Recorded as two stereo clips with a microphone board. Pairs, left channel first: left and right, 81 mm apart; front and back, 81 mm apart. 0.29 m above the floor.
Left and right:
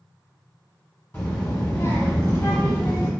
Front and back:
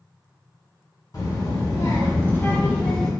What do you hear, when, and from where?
1.1 s a child speaking: 30° left, 1.4 m; by 3.1 s 75° left, 0.7 m